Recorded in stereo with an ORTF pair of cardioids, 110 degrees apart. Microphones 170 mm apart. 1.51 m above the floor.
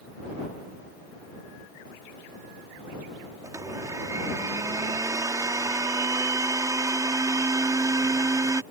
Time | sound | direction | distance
3.4 | a blender | 20° right | ?